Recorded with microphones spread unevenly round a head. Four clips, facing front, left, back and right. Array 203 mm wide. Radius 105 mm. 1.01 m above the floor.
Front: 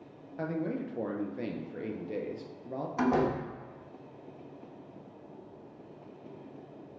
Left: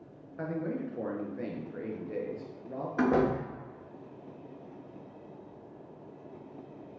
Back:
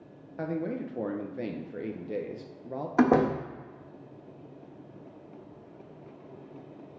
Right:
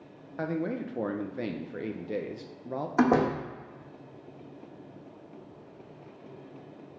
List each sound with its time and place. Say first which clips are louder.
0.4 s a man speaking: right 3 dB, back 1 dB; 125° right, 0.6 m
3.0 s a door slam: right 3 dB, back 5 dB; 155° right, 1.0 m